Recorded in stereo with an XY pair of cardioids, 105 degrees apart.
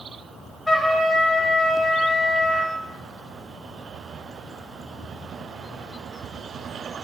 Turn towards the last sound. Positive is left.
turn(degrees=10)